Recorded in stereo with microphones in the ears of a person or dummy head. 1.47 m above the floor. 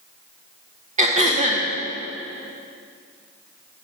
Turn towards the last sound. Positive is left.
turn(degrees=-40)  # may be behind; listen again after turning